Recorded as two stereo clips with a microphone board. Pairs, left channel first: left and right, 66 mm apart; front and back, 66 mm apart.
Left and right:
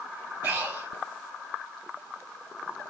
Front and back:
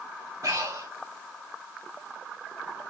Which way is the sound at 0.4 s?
155° right.